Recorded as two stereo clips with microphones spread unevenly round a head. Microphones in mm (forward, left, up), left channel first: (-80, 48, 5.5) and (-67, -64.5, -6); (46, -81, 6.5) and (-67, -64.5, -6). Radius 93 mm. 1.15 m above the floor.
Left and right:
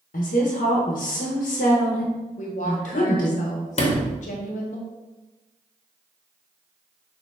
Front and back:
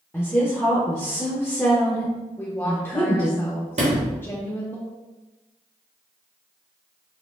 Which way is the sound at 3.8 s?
120° left.